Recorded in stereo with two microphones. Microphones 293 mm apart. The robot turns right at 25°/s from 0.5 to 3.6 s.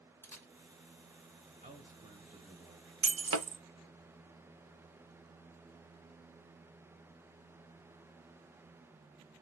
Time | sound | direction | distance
0.2 | a camera shutter | 10° left (ahead or behind) | 0.9 m
1.6 | a man speaking | 25° right (ahead or behind) | 1.5 m
3.0 | breaking glass | 50° right (ahead or behind) | 0.5 m